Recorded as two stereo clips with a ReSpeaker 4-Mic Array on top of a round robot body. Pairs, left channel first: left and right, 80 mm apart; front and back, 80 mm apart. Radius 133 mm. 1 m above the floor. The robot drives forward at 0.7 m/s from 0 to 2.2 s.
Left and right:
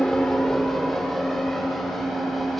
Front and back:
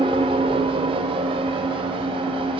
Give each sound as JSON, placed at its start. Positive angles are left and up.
{"t": 0.0, "sound": "an engine running", "azimuth_deg": 175, "distance_m": 0.7}